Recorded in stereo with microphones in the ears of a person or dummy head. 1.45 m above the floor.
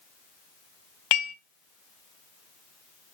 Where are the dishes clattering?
30° left (ahead or behind), 0.5 m.